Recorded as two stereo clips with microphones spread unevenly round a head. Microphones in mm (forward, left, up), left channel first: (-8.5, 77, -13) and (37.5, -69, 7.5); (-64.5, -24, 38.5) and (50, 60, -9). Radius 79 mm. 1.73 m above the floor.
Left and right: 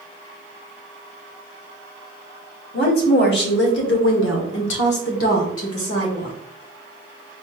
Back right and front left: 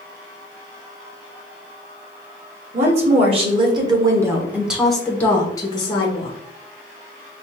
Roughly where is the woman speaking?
Left.